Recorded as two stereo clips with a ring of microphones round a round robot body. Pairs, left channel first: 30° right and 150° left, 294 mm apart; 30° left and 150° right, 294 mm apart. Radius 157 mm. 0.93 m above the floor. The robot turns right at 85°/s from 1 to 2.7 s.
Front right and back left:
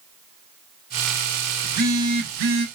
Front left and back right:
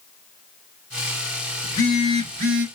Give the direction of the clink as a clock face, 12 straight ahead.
No clink in this recording.